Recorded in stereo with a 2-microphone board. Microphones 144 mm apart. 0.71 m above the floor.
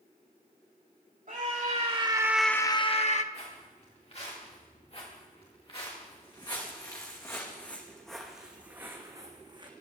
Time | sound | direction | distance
1.3 | a scream | 65° right (ahead or behind) | 1.9 m
3.3 | footsteps | 50° left (ahead or behind) | 7.5 m